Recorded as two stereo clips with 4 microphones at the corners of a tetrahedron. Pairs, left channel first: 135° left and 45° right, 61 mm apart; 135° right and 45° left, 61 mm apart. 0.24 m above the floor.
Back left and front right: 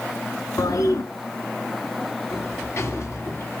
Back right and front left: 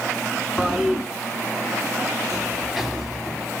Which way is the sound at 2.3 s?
130° left.